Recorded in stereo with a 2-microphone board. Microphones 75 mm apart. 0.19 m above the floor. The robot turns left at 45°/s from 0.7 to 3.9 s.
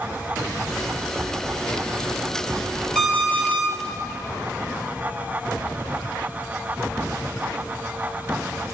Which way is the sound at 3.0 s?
175° left.